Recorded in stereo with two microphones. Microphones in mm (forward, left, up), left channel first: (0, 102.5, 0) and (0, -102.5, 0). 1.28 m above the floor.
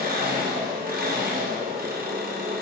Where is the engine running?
45° right (ahead or behind), 1.0 m.